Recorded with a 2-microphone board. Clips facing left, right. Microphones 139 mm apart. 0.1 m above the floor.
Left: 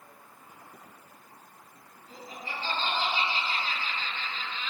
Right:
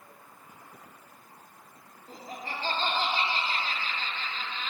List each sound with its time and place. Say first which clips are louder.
2.1 s laughter: right 2 dB; 45° right (ahead or behind), 1.7 m